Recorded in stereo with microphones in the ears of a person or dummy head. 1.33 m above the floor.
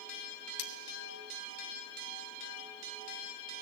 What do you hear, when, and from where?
0.6 s cutlery clinking: 55° left (ahead or behind), 1.1 m